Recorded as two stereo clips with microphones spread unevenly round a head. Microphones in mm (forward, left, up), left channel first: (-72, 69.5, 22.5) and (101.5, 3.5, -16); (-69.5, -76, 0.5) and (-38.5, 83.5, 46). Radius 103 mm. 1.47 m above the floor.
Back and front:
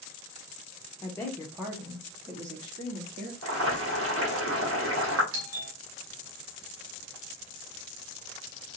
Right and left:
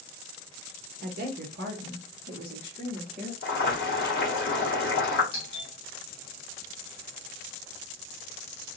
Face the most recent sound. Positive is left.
turn(degrees=-40)